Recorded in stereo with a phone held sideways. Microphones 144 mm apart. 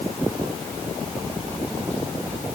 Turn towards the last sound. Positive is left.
No sound to turn to.